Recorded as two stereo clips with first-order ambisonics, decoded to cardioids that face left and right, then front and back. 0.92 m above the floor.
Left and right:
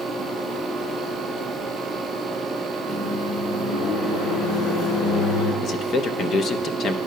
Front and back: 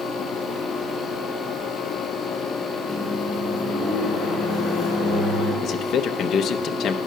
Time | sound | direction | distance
2.9 | a microwave | 60° left | 3.5 m
5.6 | a man speaking | 45° left | 0.5 m